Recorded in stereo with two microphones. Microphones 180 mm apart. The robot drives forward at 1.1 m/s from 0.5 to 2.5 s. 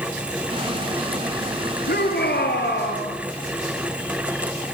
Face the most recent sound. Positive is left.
turn(degrees=65)  # may be behind; listen again after turning